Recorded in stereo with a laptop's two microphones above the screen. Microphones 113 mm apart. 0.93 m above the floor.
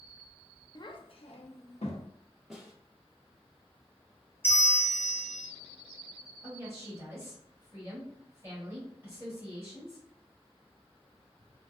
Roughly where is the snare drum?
Centre.